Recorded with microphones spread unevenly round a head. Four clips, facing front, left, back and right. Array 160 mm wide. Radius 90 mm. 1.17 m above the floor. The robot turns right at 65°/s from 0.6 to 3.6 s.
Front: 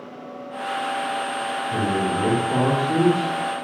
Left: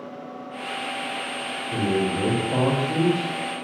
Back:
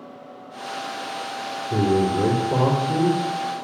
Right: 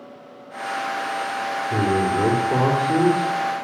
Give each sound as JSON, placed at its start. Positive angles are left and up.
{"t": 1.7, "sound": "a man speaking", "azimuth_deg": -125, "distance_m": 4.5}